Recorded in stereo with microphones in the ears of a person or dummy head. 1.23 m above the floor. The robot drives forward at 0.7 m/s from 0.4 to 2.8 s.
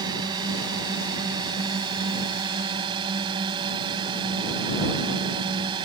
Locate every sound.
0.0 s a drone: 20° right (ahead or behind); by 5.8 s 25° right (ahead or behind)